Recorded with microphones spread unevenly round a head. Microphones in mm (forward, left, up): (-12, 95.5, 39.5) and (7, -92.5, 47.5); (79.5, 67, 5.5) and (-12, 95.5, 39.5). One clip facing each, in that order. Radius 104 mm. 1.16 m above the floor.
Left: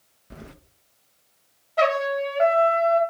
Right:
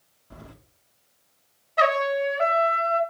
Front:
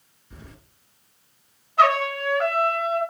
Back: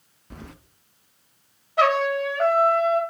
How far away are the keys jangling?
About 0.6 m.